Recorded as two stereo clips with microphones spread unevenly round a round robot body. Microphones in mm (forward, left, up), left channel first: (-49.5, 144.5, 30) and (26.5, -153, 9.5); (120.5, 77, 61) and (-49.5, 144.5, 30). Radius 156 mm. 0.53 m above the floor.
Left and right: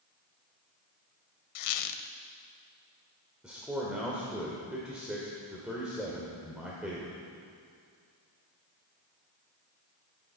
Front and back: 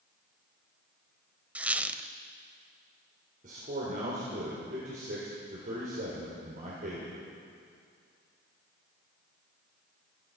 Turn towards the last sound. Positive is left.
turn(degrees=-160)